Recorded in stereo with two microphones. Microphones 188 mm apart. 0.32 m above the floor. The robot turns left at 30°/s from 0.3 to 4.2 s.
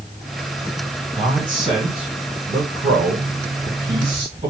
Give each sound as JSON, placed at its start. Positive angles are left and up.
{"t": 1.1, "sound": "a man speaking", "side_deg": -15, "distance_m": 2.0}